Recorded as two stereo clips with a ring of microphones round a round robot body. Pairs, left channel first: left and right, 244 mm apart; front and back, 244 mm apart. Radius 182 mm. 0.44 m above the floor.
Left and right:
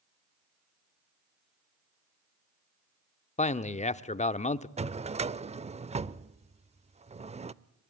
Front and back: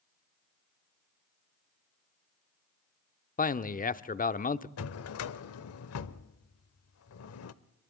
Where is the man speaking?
40° left, 1.0 m.